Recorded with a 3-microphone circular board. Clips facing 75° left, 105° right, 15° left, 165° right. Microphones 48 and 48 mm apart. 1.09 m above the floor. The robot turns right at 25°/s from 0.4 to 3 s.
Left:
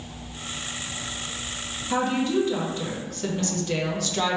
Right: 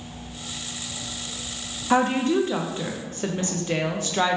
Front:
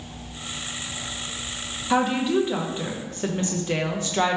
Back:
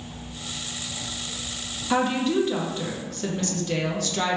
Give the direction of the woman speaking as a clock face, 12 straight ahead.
2 o'clock.